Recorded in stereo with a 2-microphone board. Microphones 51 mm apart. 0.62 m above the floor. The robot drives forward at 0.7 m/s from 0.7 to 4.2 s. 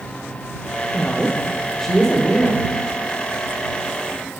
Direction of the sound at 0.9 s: 15° left (ahead or behind).